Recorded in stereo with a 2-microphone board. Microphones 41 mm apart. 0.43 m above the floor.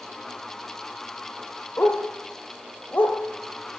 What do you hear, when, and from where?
1.8 s a dog barking: 55° left (ahead or behind), 3.5 m